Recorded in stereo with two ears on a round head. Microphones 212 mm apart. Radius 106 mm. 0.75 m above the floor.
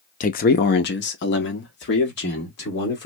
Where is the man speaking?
35° left (ahead or behind), 0.6 m; by 3.1 s 45° left (ahead or behind), 2.0 m.